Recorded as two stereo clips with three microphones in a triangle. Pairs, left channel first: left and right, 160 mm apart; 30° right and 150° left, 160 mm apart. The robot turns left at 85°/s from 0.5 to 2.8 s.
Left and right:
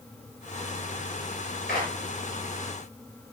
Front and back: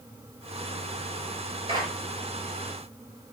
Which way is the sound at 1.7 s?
95° left.